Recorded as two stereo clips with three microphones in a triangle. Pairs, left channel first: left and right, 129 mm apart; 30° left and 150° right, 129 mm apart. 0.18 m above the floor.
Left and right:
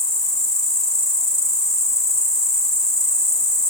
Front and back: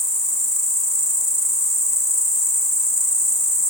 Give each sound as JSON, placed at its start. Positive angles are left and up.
{"t": 0.0, "sound": "an insect", "azimuth_deg": 65, "distance_m": 0.7}